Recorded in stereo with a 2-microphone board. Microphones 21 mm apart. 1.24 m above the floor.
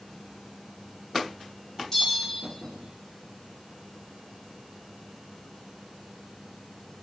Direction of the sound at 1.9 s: 20° left (ahead or behind).